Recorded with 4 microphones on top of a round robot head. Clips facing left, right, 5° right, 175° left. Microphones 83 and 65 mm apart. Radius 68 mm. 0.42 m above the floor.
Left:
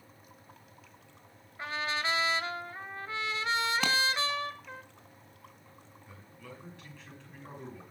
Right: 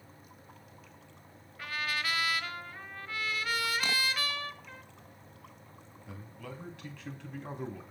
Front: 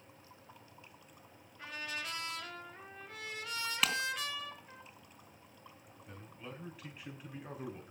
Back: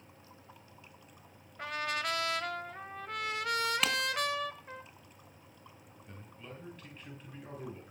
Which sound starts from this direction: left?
A clap, at 3.8 s.